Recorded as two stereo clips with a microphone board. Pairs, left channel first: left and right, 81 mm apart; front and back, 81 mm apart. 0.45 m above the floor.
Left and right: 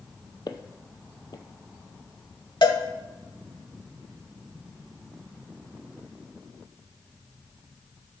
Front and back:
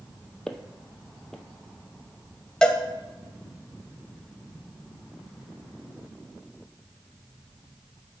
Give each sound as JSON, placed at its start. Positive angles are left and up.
{"t": 0.5, "sound": "footsteps", "azimuth_deg": 85, "distance_m": 0.8}
{"t": 2.6, "sound": "a cowbell", "azimuth_deg": 80, "distance_m": 0.9}